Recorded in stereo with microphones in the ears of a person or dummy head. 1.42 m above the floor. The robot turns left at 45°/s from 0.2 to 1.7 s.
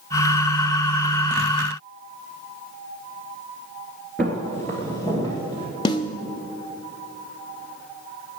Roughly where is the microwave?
No microwave in this recording.